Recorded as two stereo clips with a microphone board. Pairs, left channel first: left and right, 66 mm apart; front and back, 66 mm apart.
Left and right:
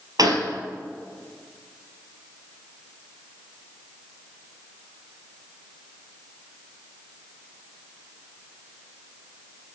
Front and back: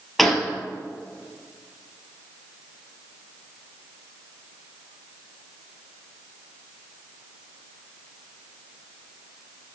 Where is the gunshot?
85° right, 1.8 m.